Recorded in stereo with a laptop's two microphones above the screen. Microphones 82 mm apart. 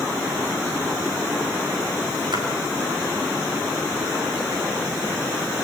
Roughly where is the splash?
Right.